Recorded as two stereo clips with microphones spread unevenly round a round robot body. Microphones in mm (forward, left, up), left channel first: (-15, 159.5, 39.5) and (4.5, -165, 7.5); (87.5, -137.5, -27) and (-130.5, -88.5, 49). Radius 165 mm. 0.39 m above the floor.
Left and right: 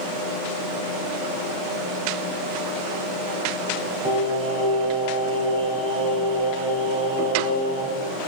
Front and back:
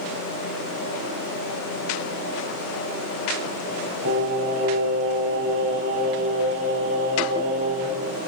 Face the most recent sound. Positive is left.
turn(degrees=-160)